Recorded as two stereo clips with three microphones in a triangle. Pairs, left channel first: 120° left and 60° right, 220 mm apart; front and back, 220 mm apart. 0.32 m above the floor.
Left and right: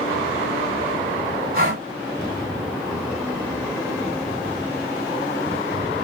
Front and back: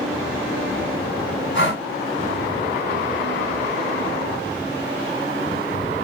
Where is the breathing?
25° right, 2 m.